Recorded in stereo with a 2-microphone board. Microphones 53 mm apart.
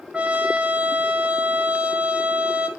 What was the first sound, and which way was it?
A trumpet, 25° right (ahead or behind).